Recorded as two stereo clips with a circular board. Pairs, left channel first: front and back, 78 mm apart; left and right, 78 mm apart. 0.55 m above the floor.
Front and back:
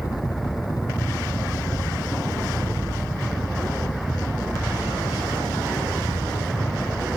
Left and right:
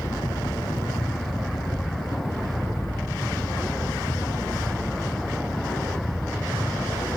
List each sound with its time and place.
0.0 s a helicopter: 35° left